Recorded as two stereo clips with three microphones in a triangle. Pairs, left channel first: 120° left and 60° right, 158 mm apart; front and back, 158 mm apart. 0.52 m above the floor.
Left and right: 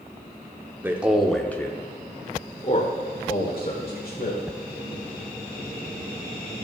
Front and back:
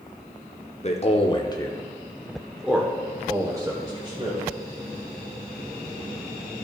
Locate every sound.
0.8 s a man speaking: 15° left, 1.0 m; by 4.4 s 125° left, 1.8 m